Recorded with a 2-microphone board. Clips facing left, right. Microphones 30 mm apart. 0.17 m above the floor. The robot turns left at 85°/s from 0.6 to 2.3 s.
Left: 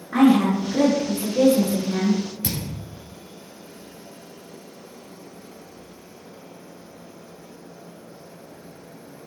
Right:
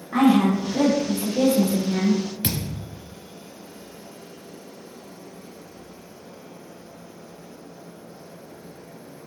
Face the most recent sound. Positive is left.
turn(degrees=-50)  # may be behind; listen again after turning